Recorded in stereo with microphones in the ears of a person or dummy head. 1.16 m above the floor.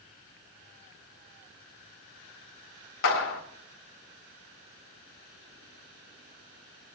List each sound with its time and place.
3.0 s a clap: 70° left (ahead or behind), 2 m